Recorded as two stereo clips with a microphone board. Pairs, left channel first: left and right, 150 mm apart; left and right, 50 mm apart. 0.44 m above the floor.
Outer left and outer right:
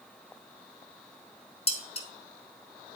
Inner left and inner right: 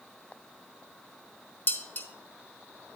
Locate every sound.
1.7 s dishes clattering: 40° left (ahead or behind), 0.8 m